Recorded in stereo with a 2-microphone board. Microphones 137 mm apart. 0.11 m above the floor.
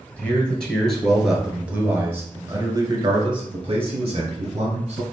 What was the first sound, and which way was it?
A man speaking, 10° left (ahead or behind).